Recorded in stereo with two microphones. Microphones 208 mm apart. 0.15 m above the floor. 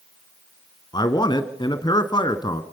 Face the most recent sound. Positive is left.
turn(degrees=20)  # may be behind; listen again after turning